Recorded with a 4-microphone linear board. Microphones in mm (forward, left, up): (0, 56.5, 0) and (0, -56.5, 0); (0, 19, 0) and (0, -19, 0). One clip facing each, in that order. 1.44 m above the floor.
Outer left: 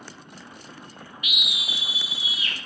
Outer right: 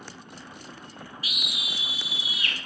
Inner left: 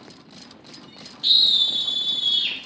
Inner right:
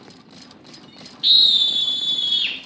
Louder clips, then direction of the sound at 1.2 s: Outer left 5 dB, inner right 3 dB; 35° right (ahead or behind).